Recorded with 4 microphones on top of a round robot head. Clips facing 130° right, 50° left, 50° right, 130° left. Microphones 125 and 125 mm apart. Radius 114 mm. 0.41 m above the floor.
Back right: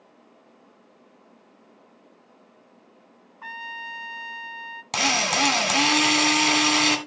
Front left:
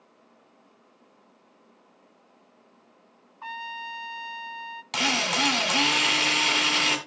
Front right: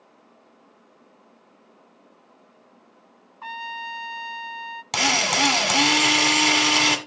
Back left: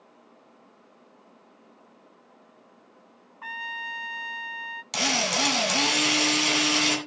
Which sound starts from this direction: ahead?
A trumpet, at 3.4 s.